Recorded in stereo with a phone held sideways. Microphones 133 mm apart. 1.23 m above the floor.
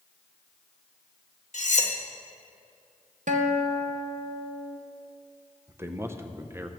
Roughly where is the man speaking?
Centre.